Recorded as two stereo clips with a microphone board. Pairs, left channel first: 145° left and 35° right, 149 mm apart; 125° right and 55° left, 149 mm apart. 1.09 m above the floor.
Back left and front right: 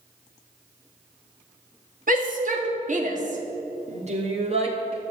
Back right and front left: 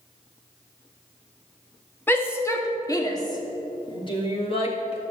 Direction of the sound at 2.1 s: 50° right.